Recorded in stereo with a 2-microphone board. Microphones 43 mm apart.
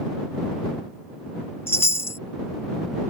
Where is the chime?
70° left (ahead or behind).